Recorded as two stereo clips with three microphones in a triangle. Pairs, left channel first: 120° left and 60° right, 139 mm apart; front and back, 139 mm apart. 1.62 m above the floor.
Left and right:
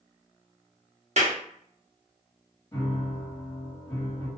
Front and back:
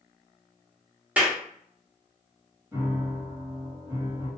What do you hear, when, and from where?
1.2 s a clap: 100° right, 0.8 m
2.7 s a piano: 150° left, 1.5 m